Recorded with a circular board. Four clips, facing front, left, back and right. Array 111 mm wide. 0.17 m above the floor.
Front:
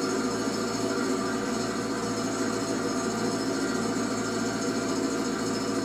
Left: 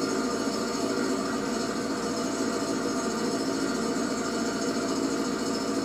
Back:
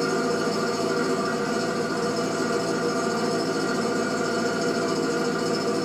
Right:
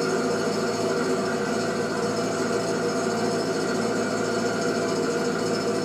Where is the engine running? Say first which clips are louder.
Right 4 dB, back 4 dB; 145° right, 4.5 m.